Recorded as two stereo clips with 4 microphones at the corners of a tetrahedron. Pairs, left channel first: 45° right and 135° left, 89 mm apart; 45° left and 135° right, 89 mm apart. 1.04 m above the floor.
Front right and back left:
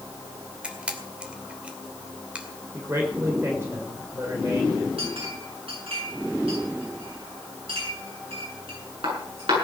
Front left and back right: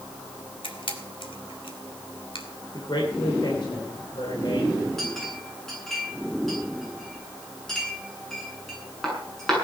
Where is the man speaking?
75° left, 3 m.